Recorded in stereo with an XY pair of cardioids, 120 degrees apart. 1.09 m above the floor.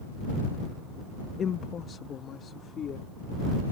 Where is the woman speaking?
40° left; by 3.1 s 50° left.